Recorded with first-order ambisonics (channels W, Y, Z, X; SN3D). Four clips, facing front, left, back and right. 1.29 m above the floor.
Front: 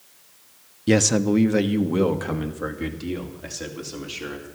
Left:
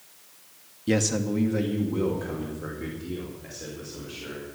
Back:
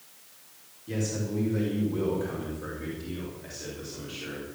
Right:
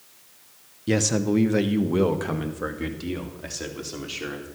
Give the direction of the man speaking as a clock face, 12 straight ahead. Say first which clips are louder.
Right 2 dB, front 13 dB; 12 o'clock.